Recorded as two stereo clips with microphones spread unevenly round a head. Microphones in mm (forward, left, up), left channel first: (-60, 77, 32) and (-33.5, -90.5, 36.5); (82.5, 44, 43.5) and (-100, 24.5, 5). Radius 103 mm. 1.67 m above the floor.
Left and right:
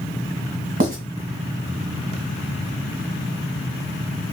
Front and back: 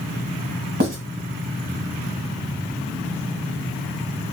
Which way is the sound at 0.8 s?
120° right.